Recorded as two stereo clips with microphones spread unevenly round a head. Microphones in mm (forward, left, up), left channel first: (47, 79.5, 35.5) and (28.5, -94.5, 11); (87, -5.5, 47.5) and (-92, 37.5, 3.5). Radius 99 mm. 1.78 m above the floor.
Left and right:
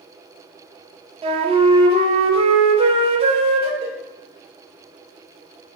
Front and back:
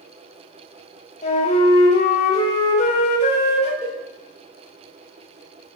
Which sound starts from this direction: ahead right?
A flute, at 1.2 s.